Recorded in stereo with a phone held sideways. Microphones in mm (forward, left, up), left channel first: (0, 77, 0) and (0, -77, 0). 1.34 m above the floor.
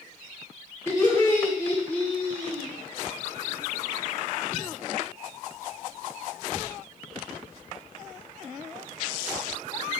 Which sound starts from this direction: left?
Laughter, at 0.9 s.